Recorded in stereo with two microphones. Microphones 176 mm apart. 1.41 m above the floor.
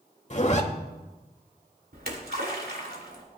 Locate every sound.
0.3 s a zipper: 45° left (ahead or behind), 1.5 m
1.9 s a splash: 70° right (ahead or behind), 2.5 m